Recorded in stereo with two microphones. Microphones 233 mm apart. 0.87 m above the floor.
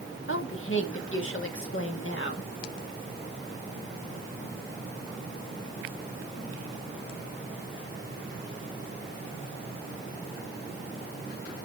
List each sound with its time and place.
0.3 s a woman speaking: 60° left (ahead or behind), 1.7 m